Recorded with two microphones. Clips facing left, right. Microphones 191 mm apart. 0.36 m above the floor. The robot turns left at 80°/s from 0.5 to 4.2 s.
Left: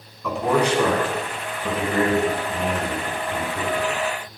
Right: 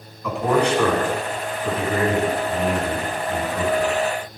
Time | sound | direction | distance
0.2 | a man speaking | straight behind | 3.5 m